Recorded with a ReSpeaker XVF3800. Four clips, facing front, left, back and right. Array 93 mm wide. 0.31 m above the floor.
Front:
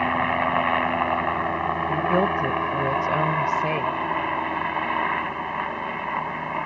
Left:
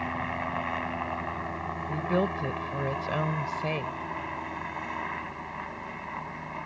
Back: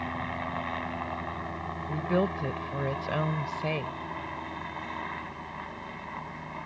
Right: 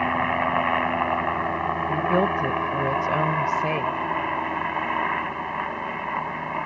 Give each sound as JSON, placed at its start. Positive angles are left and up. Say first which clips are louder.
{"t": 0.0, "sound": "a helicopter", "louder": "right 9 dB, front 12 dB", "azimuth_deg": -40}
{"t": 1.9, "sound": "a woman speaking", "louder": "right 5 dB, front 5 dB", "azimuth_deg": -45}